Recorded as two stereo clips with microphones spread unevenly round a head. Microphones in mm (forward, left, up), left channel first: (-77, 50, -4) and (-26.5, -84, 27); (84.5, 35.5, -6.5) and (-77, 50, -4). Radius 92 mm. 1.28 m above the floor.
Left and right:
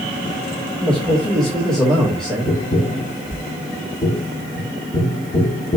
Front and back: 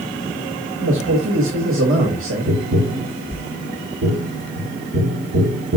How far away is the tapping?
About 1.7 m.